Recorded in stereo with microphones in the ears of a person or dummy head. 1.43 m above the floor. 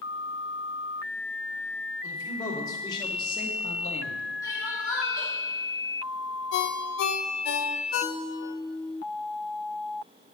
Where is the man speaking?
25° left (ahead or behind), 3 m; by 4.3 s 45° left (ahead or behind), 1.2 m.